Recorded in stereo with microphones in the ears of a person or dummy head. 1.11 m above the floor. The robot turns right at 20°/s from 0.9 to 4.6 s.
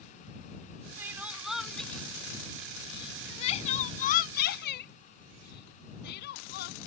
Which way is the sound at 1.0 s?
10° right (ahead or behind).